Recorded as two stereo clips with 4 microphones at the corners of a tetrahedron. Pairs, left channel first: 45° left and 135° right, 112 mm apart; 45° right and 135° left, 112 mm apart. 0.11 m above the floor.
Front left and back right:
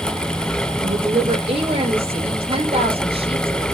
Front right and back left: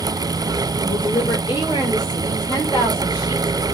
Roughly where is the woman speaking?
Right.